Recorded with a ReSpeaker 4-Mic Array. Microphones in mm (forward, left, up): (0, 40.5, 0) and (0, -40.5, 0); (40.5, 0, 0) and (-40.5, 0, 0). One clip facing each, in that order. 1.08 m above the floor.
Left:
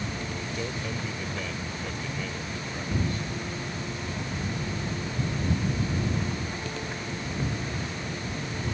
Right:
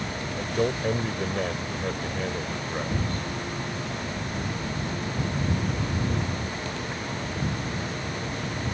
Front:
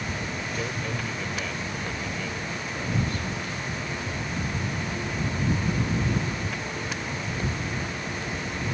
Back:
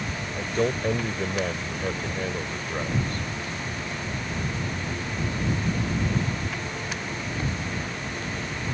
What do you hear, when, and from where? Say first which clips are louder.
0.4 s a man speaking: right 7 dB, back 6 dB; 135° right